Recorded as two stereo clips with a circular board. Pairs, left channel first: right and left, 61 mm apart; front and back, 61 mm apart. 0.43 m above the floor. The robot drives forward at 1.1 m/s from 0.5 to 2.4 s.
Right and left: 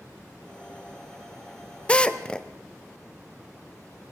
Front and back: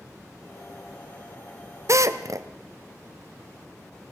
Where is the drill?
160° right, 1.1 m; by 2.5 s 165° right, 1.6 m.